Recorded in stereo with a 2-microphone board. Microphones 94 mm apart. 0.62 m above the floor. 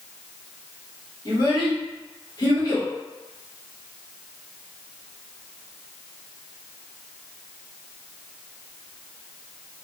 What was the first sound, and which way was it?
A child speaking, 45° left (ahead or behind).